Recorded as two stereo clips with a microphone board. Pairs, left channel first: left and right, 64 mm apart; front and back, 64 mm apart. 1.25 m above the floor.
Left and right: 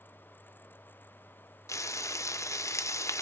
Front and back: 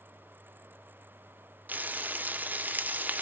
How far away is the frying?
About 0.8 m.